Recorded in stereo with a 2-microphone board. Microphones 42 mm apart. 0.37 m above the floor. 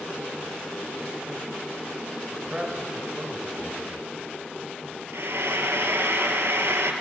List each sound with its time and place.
2.3 s a man speaking: 15° right (ahead or behind), 1.5 m
5.1 s frying: 75° right (ahead or behind), 1.2 m